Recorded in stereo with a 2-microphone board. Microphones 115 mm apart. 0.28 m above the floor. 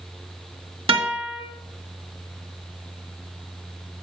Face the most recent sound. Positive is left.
turn(degrees=-55)  # may be behind; listen again after turning